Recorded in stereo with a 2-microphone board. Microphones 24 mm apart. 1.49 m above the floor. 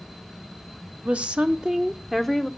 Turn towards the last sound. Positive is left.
turn(degrees=15)  # may be behind; listen again after turning